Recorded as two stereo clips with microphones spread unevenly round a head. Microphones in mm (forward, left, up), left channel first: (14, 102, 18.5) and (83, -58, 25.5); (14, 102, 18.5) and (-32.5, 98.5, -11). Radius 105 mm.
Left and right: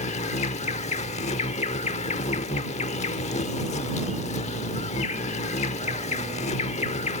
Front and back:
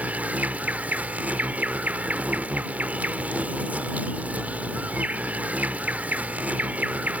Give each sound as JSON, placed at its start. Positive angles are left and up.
{"t": 0.0, "sound": "an insect", "azimuth_deg": 90}